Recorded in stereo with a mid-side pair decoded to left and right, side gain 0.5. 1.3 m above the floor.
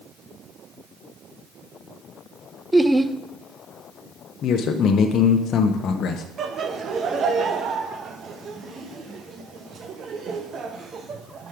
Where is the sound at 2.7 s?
10° right, 0.6 m.